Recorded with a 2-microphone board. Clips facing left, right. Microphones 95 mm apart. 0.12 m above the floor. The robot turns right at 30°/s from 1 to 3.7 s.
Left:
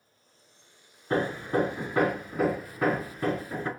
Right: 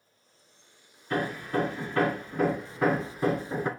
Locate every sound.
1.1 s hammering: 125° left, 0.9 m; by 3.7 s 155° right, 0.9 m